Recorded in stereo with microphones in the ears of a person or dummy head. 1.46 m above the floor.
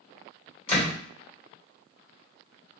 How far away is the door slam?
About 1.4 m.